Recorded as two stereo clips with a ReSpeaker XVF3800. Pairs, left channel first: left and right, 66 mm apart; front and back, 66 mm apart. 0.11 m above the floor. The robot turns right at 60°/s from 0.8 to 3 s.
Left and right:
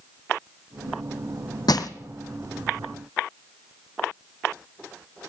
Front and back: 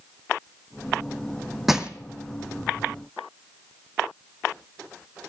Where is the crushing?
95° left, 0.9 m; by 1.9 s 110° left, 0.9 m.